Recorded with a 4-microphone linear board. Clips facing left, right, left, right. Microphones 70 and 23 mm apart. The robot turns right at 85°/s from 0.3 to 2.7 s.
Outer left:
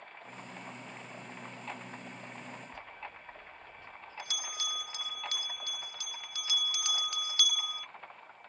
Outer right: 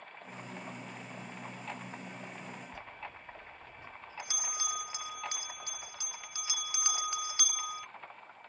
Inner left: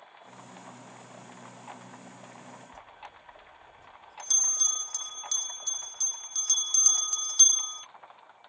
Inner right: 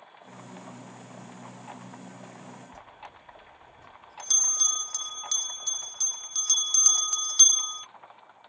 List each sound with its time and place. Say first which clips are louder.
2.7 s a bell: even, inner right 1 dB; 20° right (ahead or behind)